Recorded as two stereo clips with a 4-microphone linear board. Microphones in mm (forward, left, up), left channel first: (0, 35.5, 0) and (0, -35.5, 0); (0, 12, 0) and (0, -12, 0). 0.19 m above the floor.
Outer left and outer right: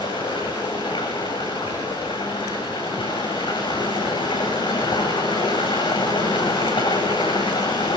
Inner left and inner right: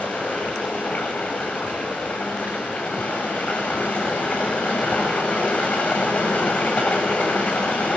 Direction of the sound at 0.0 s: 85° left.